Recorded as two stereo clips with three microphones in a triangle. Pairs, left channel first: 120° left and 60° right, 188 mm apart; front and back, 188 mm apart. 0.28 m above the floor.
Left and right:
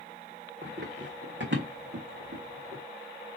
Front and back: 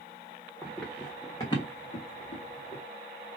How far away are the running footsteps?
About 1.4 m.